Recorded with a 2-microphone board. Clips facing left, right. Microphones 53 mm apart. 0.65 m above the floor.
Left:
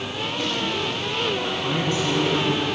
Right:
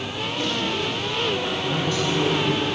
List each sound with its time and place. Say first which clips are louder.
1.6 s a man speaking: even; 25° left (ahead or behind), 5 m